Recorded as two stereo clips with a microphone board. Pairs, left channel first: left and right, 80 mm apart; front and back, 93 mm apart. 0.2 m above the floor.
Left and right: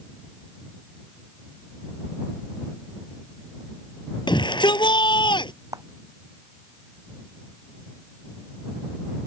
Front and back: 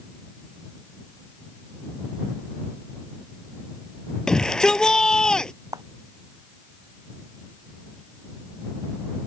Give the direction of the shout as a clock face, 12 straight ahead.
9 o'clock.